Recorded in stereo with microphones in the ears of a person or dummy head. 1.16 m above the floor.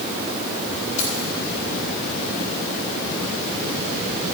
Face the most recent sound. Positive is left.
turn(degrees=40)  # may be behind; listen again after turning